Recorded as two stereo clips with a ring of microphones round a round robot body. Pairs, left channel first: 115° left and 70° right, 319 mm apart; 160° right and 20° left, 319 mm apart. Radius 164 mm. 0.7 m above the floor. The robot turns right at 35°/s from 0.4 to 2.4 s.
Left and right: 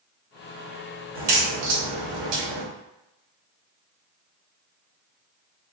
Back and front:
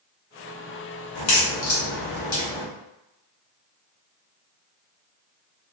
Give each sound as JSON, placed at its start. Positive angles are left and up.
{"t": 1.1, "sound": "a crack", "azimuth_deg": -130, "distance_m": 1.3}